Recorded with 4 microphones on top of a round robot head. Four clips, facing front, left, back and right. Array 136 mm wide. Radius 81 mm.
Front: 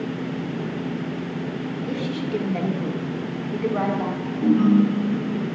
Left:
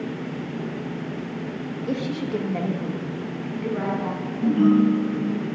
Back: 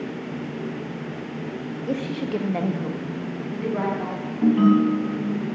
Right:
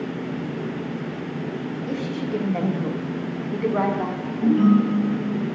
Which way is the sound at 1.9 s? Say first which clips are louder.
Left 1 dB, back 2 dB; 145° left.